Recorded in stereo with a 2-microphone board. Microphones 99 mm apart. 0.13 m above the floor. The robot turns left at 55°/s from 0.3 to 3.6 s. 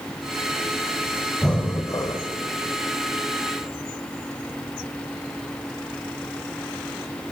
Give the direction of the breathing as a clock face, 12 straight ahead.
6 o'clock.